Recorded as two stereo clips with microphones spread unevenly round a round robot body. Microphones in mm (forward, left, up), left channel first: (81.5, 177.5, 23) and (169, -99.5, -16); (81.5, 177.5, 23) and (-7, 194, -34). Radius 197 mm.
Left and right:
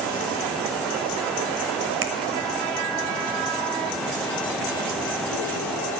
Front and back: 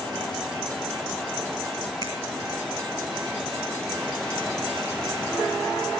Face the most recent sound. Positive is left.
turn(degrees=-100)